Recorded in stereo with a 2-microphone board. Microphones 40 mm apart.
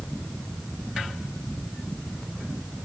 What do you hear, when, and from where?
Only background noise.